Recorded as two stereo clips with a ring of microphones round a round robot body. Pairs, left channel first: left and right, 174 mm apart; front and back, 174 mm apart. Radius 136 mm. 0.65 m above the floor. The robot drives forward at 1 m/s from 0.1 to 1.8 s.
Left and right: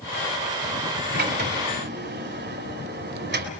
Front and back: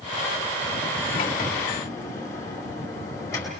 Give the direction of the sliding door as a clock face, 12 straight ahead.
2 o'clock.